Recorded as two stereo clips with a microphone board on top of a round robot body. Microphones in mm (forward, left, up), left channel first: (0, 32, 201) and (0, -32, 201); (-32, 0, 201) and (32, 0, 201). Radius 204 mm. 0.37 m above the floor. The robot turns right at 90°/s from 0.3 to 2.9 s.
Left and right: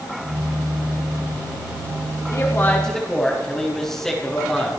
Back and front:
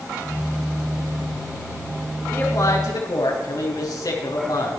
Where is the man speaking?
120° left, 7 m; by 4.8 s 175° left, 7 m.